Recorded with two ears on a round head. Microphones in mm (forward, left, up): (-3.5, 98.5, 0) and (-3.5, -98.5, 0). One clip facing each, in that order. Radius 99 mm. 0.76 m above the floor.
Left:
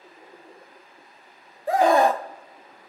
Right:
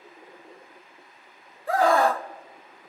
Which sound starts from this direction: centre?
A scream, at 1.7 s.